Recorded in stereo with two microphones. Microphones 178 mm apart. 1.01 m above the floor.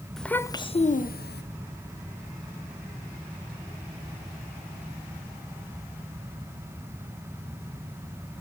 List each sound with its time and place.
0.2 s a child speaking: centre (ahead or behind), 0.5 m; by 1.4 s 70° left (ahead or behind), 0.6 m